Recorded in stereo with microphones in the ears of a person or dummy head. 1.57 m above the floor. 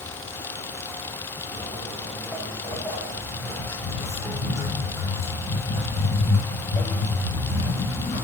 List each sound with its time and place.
1.5 s footsteps: 5° left (ahead or behind), 3.5 m; by 8.2 s 20° left (ahead or behind), 6.5 m